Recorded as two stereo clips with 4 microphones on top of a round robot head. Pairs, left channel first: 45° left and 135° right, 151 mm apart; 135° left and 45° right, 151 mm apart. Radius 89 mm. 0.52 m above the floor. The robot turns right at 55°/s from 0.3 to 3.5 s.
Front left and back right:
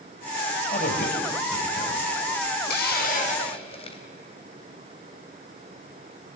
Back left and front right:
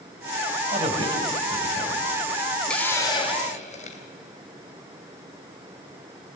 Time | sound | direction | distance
0.7 | a man speaking | straight ahead | 4 m
2.7 | a hiss | 50° left | 2.5 m